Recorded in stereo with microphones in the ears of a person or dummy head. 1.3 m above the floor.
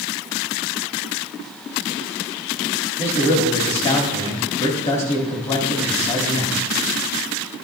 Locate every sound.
3.0 s a man speaking: 30° left (ahead or behind), 2.5 m